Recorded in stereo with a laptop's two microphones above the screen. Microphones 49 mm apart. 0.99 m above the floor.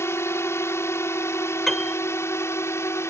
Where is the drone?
65° left (ahead or behind).